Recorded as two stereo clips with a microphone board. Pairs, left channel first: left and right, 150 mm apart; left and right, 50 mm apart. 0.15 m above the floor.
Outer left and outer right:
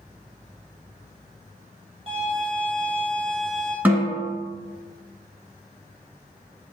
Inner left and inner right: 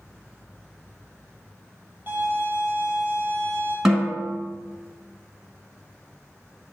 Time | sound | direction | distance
2.1 | a violin | 35° right (ahead or behind) | 1.9 m
3.9 | a snare drum | 10° right (ahead or behind) | 1.0 m